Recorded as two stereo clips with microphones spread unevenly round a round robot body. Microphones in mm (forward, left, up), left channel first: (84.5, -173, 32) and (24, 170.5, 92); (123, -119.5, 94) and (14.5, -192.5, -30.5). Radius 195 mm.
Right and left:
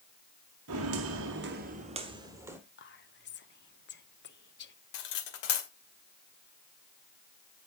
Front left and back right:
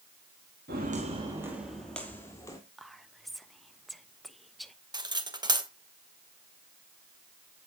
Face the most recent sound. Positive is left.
turn(degrees=-85)